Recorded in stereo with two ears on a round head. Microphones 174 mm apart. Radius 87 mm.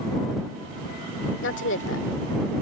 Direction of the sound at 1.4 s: 70° left (ahead or behind).